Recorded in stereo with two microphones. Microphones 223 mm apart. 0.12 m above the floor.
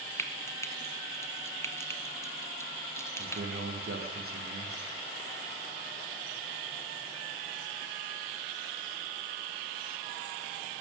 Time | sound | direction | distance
0.2 | frying | 10° left (ahead or behind) | 1.4 m
3.2 | a man speaking | 75° right (ahead or behind) | 6 m